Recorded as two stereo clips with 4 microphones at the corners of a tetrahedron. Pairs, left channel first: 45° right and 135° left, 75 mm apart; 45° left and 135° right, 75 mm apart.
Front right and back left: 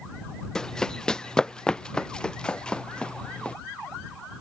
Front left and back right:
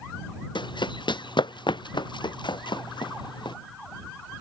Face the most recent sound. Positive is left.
turn(degrees=35)